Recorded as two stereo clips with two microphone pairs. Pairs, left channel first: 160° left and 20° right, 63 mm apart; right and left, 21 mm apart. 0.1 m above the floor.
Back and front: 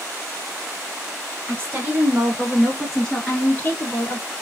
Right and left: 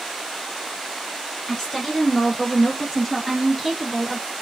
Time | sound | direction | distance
1.5 | a woman speaking | 30° right | 1.4 m